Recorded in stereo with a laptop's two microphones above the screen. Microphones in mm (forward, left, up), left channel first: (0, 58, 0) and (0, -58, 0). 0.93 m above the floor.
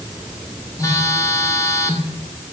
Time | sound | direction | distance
0.8 | a phone buzzing | 30° left (ahead or behind) | 1.8 m